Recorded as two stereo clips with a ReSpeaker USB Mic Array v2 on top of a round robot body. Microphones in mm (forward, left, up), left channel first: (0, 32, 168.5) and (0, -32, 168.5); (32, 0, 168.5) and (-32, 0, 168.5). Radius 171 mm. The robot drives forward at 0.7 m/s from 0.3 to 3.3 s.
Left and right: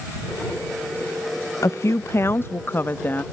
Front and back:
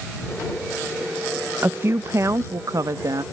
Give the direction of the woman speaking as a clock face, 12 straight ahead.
8 o'clock.